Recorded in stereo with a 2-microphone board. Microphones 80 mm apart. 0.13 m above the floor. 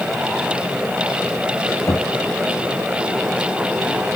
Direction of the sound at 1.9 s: 40° left (ahead or behind).